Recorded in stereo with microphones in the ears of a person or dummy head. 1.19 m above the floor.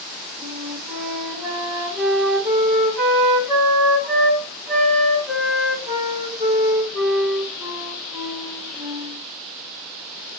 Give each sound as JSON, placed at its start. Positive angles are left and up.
{"t": 0.4, "sound": "a flute", "side_deg": -15, "distance_m": 1.3}